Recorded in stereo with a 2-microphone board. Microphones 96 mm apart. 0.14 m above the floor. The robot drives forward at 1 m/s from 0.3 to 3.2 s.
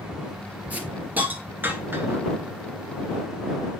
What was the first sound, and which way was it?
A hiss, 15° right (ahead or behind).